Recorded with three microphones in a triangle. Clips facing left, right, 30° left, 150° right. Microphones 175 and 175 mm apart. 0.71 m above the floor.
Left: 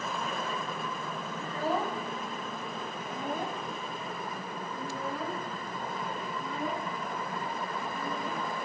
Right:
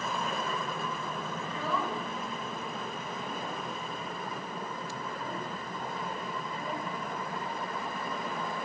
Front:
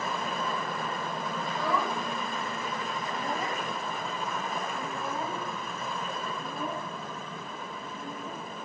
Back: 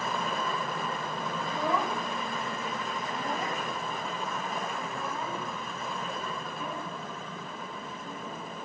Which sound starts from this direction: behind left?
A child speaking, at 1.4 s.